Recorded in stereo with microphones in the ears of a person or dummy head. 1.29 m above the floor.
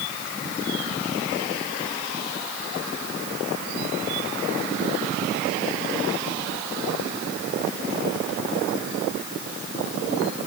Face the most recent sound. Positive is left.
No sound to turn to.